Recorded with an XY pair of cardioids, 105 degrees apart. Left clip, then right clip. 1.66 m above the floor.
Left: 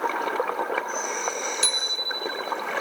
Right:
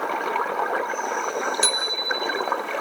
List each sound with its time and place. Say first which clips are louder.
1.6 s a bicycle bell: even; 5° right, 3 m